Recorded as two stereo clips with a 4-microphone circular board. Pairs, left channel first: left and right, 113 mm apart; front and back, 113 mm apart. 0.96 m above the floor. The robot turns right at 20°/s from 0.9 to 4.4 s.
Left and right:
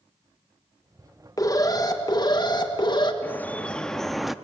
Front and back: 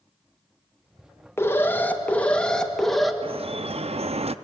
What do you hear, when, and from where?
1.4 s an alarm: 55° left, 1.4 m; by 3.1 s 90° left, 1.4 m
3.2 s dripping: 160° left, 0.5 m; by 4.3 s 175° right, 0.5 m